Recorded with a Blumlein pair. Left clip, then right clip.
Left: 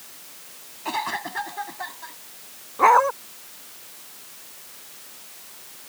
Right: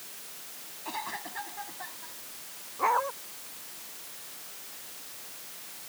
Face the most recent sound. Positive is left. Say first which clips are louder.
# left 11 dB
turn(degrees=30)